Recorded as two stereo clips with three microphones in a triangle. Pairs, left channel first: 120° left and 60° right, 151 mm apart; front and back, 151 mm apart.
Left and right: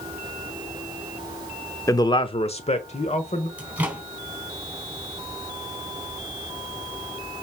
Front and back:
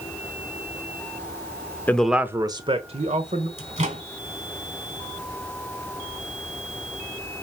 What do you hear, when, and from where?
1.9 s a man speaking: 70° left, 0.9 m; by 3.5 s 155° left, 1.7 m
3.6 s a microwave: 140° right, 3 m